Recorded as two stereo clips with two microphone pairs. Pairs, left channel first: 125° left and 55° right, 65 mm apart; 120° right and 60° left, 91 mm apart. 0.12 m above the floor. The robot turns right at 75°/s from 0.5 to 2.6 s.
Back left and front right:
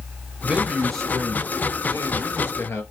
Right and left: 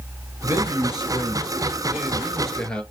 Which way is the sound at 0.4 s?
10° left.